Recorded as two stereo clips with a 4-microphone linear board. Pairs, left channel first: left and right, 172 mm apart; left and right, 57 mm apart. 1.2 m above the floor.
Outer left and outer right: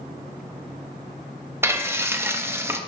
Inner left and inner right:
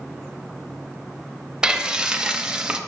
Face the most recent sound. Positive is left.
turn(degrees=-15)  # may be behind; listen again after turning